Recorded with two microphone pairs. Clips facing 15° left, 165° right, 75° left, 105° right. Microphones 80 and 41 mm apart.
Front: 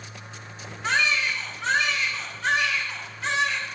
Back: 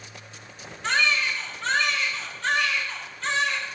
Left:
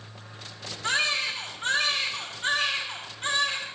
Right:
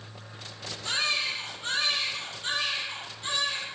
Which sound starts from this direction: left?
A baby crying, at 0.8 s.